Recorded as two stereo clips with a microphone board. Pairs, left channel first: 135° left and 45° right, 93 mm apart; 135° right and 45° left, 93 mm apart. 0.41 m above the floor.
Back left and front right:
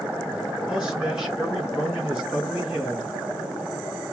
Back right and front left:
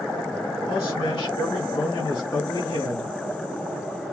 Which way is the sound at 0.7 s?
125° right.